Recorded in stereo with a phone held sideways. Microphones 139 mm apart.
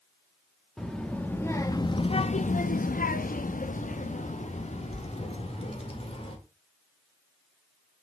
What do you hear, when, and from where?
0.8 s a child speaking: 5° left (ahead or behind), 1.0 m; by 6.4 s 45° left (ahead or behind), 2 m